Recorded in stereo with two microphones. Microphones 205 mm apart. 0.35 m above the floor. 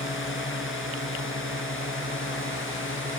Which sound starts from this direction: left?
A drone, at 0.0 s.